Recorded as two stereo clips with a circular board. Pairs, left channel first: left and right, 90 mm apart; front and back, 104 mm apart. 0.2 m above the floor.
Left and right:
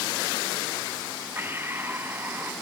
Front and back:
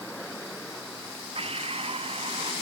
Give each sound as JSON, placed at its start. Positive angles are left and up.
{"t": 1.4, "sound": "breathing", "azimuth_deg": -155}